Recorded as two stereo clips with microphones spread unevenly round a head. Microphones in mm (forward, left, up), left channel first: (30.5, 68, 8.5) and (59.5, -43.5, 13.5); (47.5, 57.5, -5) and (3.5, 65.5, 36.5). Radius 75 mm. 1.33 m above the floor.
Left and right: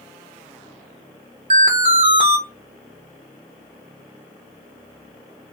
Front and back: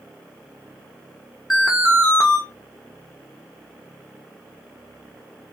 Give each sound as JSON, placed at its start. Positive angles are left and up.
{"t": 1.5, "sound": "an alarm", "azimuth_deg": -125, "distance_m": 0.6}